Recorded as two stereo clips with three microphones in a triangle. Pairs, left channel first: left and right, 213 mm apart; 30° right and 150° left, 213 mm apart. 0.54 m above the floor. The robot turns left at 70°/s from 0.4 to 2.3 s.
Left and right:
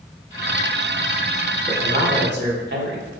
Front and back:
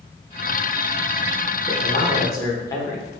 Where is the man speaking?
60° right, 1.5 m; by 3.1 s 100° right, 1.5 m.